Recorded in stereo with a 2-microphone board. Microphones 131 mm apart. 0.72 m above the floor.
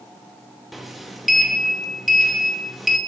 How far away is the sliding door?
About 0.7 m.